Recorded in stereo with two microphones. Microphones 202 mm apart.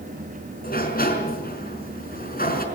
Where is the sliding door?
50° left (ahead or behind), 4.5 m.